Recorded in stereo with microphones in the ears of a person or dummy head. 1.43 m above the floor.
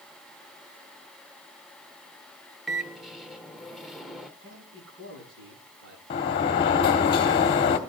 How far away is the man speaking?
About 10 m.